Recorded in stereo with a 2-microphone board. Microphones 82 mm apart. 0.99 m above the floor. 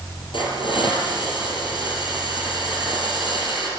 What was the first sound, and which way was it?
A hiss, 75° left (ahead or behind).